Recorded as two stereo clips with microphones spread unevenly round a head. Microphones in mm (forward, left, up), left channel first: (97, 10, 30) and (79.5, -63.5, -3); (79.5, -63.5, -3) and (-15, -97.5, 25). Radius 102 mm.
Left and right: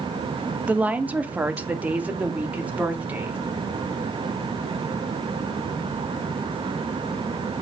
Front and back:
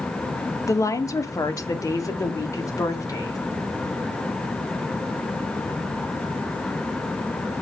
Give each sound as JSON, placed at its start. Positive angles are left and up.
{"t": 0.7, "sound": "a woman speaking", "azimuth_deg": -35, "distance_m": 1.0}